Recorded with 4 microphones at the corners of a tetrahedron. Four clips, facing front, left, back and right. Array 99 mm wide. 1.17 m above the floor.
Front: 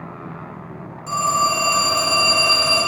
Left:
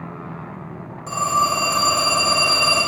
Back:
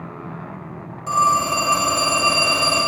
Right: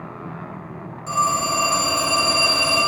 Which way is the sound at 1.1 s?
160° left.